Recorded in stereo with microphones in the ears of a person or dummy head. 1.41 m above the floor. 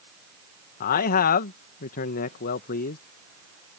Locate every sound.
0.8 s a man speaking: 55° left (ahead or behind)